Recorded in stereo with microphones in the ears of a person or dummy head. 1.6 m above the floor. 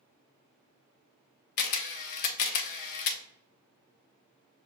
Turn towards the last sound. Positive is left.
turn(degrees=50)  # may be behind; listen again after turning